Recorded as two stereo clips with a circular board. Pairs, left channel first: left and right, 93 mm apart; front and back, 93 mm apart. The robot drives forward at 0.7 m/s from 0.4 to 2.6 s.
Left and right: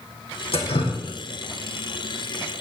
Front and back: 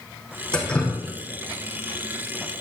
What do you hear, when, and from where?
0.5 s dripping: 80° left, 3 m; by 2.6 s 105° left, 3 m